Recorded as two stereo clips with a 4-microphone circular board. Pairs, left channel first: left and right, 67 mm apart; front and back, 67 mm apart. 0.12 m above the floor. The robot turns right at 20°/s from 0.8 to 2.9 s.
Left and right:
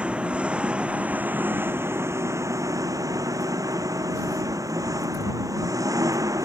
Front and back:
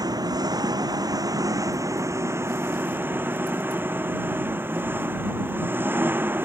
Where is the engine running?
165° right; by 6.5 s 120° right.